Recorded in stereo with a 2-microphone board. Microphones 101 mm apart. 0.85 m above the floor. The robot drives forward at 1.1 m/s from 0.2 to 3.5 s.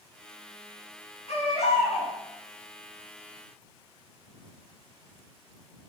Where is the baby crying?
80° left, 5.5 m; by 2.1 s 85° left, 5.5 m.